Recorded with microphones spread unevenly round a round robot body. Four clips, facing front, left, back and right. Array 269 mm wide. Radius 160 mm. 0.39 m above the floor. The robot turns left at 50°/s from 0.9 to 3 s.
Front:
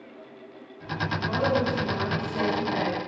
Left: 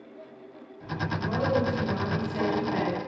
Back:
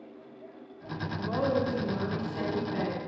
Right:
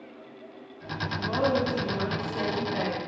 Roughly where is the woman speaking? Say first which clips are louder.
Right 1 dB, front 2 dB; behind.